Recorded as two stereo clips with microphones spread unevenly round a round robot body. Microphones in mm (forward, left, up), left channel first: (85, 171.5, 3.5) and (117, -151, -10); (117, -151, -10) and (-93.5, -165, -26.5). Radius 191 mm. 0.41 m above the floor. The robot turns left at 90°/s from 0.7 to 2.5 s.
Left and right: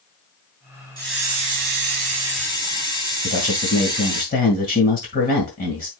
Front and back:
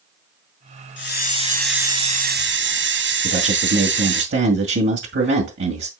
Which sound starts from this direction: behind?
A man speaking, at 3.2 s.